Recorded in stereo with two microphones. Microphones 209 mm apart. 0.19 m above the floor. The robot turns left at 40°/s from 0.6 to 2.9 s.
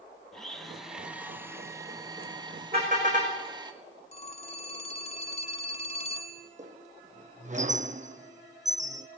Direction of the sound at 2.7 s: 30° right (ahead or behind).